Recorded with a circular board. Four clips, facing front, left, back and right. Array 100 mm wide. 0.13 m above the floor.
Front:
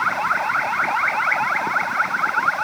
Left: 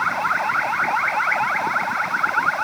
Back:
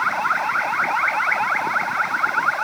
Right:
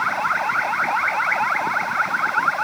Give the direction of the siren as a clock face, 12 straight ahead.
I don't hear a siren.